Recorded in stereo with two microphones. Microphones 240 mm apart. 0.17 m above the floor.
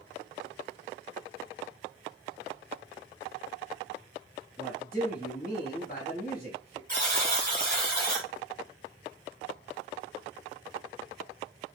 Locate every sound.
4.6 s a man speaking: 20° left (ahead or behind), 1.1 m
6.9 s a buzzer: 35° right (ahead or behind), 1.8 m